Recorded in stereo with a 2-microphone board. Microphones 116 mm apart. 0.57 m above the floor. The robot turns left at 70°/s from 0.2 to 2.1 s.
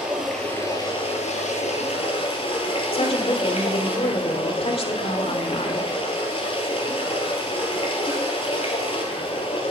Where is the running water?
175° right, 3 m; by 9.7 s 55° left, 3 m.